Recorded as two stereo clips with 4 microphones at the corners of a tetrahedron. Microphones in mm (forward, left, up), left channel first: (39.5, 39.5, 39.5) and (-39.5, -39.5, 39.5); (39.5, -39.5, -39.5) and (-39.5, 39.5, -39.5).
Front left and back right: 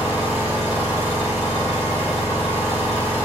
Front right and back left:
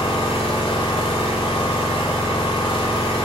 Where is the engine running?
20° right, 1.1 m.